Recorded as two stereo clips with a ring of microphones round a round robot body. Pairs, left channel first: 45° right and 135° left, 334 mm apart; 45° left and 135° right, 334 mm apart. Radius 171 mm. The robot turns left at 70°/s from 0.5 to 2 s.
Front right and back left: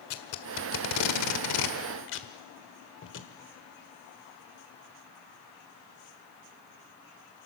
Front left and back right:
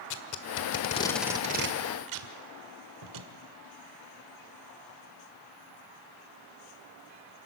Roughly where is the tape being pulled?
Ahead.